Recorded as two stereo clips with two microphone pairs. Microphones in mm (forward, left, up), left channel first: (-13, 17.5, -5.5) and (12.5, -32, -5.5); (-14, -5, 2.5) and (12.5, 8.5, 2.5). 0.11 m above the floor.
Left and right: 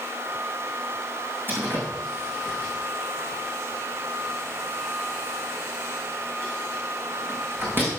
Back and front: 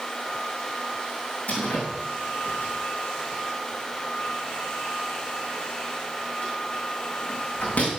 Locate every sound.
1.5 s a door slam: 115° right, 5.5 m